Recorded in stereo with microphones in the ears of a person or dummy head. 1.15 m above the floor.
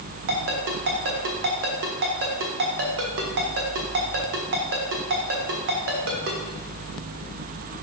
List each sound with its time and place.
0.3 s a ringtone: 60° right (ahead or behind), 1.3 m